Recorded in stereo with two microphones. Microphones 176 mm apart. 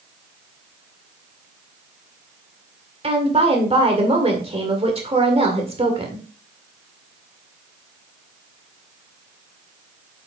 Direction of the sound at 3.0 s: 35° right (ahead or behind).